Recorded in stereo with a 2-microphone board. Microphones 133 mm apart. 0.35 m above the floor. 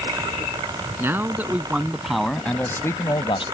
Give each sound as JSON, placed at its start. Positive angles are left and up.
{"t": 1.0, "sound": "a man speaking", "side_deg": -15}